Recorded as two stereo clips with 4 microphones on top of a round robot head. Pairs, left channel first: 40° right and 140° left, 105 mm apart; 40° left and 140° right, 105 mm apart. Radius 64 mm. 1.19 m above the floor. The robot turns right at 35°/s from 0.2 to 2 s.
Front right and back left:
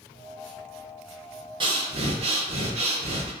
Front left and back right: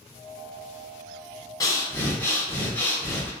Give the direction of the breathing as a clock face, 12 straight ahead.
9 o'clock.